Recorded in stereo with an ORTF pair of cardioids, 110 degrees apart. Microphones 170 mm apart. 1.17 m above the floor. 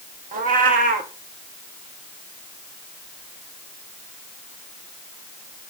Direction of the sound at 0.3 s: 55° right.